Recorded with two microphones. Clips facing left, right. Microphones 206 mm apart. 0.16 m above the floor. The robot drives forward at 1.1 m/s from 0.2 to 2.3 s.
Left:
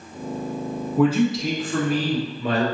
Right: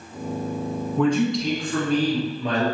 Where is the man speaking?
5° left (ahead or behind), 1.4 m.